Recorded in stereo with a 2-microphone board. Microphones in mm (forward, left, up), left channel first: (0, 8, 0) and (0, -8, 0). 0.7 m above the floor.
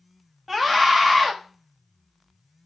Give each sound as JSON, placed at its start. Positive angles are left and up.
{"t": 0.5, "sound": "a scream", "side_deg": -15, "distance_m": 0.9}